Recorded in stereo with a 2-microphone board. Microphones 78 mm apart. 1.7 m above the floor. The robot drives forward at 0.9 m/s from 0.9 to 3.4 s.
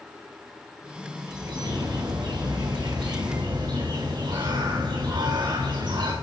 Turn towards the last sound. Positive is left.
turn(degrees=-80)